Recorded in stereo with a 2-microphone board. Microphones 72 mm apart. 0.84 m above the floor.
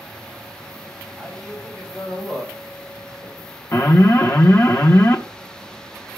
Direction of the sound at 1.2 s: 10° left (ahead or behind).